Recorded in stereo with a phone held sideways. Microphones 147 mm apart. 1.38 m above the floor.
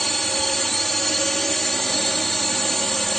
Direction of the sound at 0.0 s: Centre (ahead or behind).